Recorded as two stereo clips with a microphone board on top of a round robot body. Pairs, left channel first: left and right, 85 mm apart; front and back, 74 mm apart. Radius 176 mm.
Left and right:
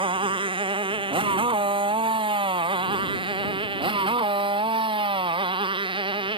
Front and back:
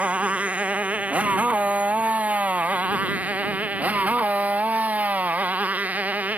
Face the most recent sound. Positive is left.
turn(degrees=-110)